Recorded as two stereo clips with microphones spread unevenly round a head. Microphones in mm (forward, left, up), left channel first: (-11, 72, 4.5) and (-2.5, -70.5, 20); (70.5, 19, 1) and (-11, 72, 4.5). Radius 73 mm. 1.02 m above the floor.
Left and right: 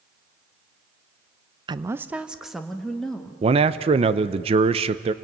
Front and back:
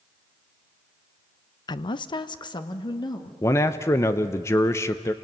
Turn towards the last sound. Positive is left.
turn(degrees=-70)